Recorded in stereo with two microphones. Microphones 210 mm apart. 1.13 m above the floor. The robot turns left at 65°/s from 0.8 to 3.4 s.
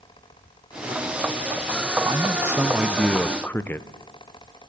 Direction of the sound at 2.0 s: 20° right (ahead or behind).